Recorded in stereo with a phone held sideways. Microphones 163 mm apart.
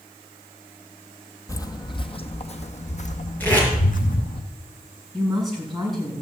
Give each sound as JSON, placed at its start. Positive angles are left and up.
{"t": 1.5, "sound": "footsteps", "side_deg": 20, "distance_m": 0.9}
{"t": 3.4, "sound": "tape being pulled", "side_deg": 10, "distance_m": 5.5}
{"t": 5.1, "sound": "a woman speaking", "side_deg": 0, "distance_m": 6.0}